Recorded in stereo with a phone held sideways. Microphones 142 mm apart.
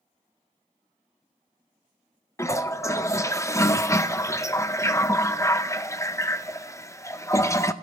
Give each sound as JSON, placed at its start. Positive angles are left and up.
{"t": 2.4, "sound": "a toilet flushing", "side_deg": 20, "distance_m": 0.6}